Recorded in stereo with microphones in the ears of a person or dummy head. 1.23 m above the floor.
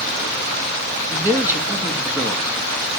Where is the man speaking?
15° right (ahead or behind), 1.5 m.